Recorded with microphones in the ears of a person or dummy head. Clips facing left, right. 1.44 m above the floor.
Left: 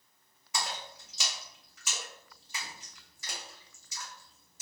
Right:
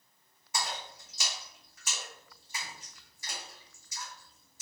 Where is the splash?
65° left (ahead or behind), 1.0 m.